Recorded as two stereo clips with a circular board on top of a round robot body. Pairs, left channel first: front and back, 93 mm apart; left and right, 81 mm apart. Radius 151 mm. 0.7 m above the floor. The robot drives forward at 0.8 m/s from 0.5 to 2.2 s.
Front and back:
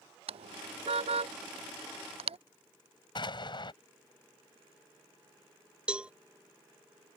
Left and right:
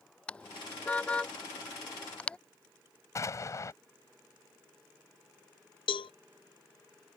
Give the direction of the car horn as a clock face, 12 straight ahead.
6 o'clock.